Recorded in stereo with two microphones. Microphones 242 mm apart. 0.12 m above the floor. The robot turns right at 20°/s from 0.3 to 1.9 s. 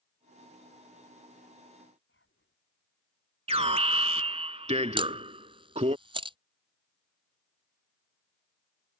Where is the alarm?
25° right (ahead or behind).